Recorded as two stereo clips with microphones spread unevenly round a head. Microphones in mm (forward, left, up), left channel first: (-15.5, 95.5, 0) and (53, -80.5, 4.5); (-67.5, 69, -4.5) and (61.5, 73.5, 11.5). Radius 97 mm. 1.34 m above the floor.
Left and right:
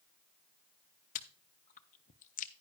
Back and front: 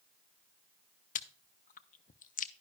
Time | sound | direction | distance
1.1 | chewing | 165° left | 0.5 m